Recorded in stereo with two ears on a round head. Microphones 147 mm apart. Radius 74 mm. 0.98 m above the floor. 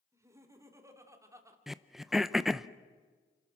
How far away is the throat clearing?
About 0.5 m.